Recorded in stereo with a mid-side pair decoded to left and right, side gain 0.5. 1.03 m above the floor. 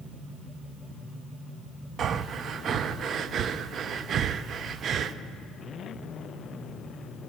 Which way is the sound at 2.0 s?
50° right.